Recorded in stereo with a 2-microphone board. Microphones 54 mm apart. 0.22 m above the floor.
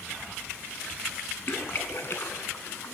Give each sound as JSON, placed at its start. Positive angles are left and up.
{"t": 1.5, "sound": "a splash", "side_deg": 55, "distance_m": 0.7}